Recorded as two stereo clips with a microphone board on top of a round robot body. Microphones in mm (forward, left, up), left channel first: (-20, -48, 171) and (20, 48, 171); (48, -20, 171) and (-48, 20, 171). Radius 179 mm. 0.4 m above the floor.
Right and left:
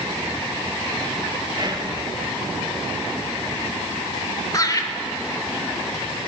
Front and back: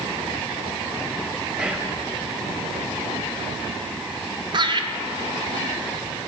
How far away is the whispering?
About 1.6 m.